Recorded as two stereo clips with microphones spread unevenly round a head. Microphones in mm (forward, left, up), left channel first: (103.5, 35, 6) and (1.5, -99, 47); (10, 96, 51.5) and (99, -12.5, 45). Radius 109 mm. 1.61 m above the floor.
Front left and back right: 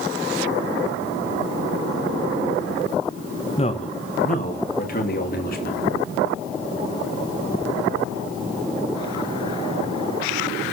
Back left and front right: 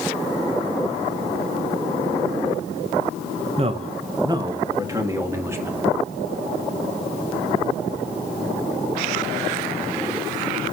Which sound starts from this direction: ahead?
A man speaking, at 3.6 s.